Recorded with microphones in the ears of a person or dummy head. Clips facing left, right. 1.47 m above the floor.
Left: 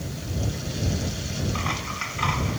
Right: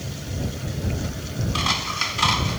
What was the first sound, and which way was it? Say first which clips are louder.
Scissors: right 2 dB; 55° right (ahead or behind).